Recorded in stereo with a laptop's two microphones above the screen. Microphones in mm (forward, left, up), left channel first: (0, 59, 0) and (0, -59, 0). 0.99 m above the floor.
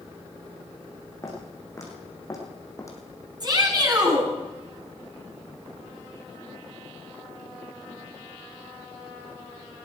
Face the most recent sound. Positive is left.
turn(degrees=-35)  # may be behind; listen again after turning